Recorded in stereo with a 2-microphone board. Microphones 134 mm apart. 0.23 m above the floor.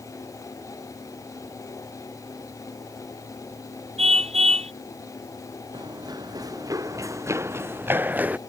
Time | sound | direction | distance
4.0 | a car horn | 55° right (ahead or behind) | ?
5.7 | running footsteps | 35° right (ahead or behind) | ?